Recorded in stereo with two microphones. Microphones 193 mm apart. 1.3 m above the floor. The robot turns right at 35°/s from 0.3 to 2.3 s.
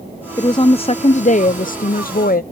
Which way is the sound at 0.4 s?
25° left.